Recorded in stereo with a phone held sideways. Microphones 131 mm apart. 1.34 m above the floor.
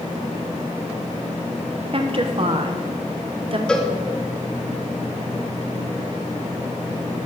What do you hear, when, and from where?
1.9 s a woman speaking: 45° right (ahead or behind), 0.8 m
3.7 s a cowbell: 5° left (ahead or behind), 1.1 m